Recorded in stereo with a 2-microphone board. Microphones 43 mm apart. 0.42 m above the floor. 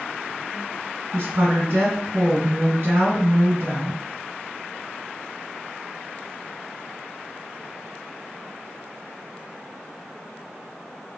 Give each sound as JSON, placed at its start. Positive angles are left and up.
{"t": 1.1, "sound": "a woman speaking", "side_deg": -50, "distance_m": 1.7}